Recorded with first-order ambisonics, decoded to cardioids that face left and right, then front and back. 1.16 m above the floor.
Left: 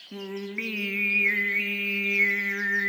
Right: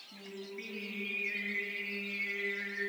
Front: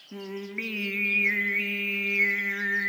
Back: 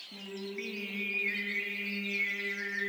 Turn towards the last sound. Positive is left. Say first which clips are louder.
# left 12 dB, front 7 dB
turn(degrees=55)